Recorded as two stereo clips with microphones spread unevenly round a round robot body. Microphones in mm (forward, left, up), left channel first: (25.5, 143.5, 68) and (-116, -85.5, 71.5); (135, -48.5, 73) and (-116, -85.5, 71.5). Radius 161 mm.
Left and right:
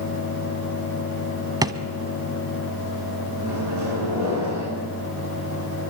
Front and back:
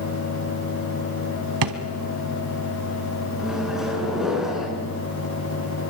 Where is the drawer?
160° left, 1.4 m.